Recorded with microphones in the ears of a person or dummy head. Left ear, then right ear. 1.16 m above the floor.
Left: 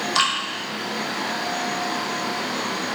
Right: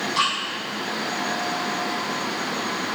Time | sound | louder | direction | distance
0.1 | dripping | left 2 dB | 30° left (ahead or behind) | 0.7 m